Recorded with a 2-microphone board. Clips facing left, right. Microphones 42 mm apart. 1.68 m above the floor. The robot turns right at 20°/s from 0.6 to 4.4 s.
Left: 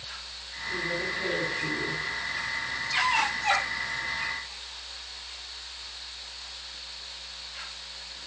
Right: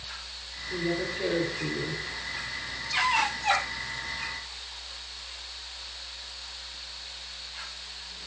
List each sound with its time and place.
0.7 s a woman speaking: 20° right (ahead or behind), 5.5 m; by 2.0 s 45° right (ahead or behind), 5.5 m